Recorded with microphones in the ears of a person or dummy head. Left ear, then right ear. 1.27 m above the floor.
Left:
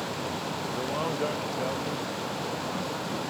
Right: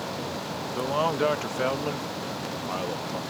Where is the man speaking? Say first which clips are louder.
Right 6 dB; 20° right (ahead or behind); by 3.2 s 80° right.